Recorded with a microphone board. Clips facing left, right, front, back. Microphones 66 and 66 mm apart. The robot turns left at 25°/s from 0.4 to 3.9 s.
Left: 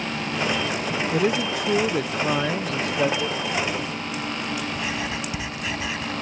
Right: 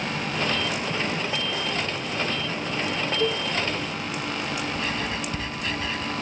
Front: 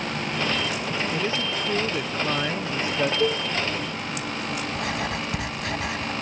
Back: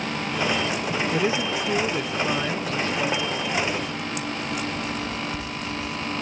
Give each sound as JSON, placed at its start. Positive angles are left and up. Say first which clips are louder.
{"t": 1.1, "sound": "a man speaking", "louder": "left 6 dB, back 3 dB", "azimuth_deg": 115}
{"t": 3.2, "sound": "a cowbell", "louder": "right 2 dB, front 4 dB", "azimuth_deg": -25}
{"t": 4.8, "sound": "writing", "louder": "even, front 1 dB", "azimuth_deg": 10}